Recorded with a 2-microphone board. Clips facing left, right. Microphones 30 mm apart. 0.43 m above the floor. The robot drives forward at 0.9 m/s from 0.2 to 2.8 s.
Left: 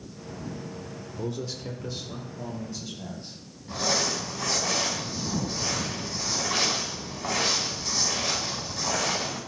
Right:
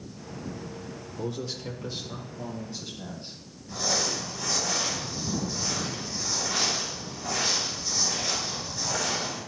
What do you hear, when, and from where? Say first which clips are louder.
1.2 s a man speaking: even; 5° right (ahead or behind), 0.8 m; by 3.3 s centre (ahead or behind), 1.9 m
3.7 s crumpling: left 2 dB; 55° left (ahead or behind), 4 m